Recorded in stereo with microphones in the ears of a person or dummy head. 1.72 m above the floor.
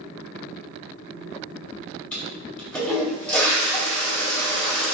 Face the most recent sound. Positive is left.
turn(degrees=5)  # may be behind; listen again after turning